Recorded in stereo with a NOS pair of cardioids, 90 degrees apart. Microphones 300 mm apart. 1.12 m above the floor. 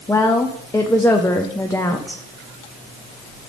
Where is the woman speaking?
10° left, 0.6 m.